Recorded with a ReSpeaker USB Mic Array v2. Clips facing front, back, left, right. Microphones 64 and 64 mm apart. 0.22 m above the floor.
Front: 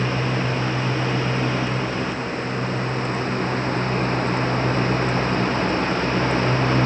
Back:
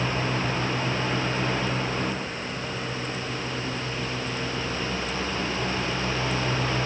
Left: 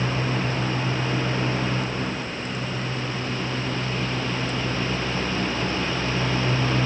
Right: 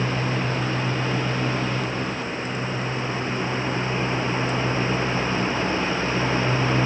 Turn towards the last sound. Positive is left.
No sound to turn to.